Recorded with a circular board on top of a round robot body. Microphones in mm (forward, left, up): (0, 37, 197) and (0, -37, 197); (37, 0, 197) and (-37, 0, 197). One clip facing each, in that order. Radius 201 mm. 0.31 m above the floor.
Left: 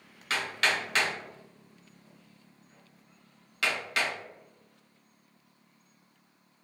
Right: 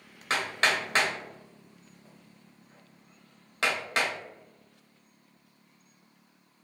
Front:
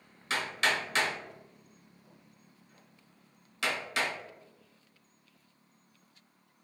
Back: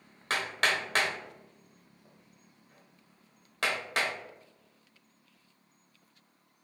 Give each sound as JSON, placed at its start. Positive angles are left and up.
{"t": 0.3, "sound": "hammering", "azimuth_deg": -145, "distance_m": 1.2}